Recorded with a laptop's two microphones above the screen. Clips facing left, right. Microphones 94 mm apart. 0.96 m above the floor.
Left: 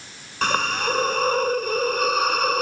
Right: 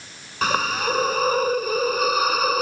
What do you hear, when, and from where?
0.4 s a hiss: 5° right (ahead or behind)